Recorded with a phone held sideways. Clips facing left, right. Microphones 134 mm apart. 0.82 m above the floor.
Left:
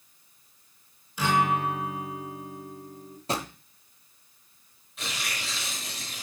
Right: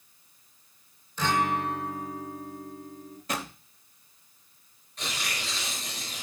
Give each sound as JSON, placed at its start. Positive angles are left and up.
{"t": 1.2, "sound": "a guitar", "side_deg": 10, "distance_m": 1.7}
{"t": 3.3, "sound": "a drawer", "side_deg": 30, "distance_m": 0.8}
{"t": 5.0, "sound": "tearing paper", "side_deg": 5, "distance_m": 3.5}